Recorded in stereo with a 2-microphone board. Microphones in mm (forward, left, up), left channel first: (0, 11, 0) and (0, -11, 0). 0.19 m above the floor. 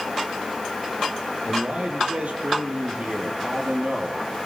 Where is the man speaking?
75° right (ahead or behind), 4.5 m.